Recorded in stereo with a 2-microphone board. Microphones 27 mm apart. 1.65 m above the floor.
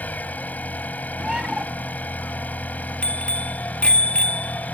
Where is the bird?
35° right (ahead or behind).